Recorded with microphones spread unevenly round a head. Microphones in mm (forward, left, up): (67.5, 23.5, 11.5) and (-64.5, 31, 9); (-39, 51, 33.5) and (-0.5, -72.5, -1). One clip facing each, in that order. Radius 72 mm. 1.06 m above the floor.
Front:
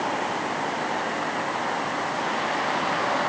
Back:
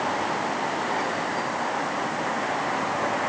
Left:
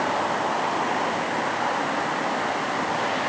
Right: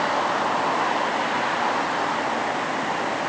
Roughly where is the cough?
No cough in this recording.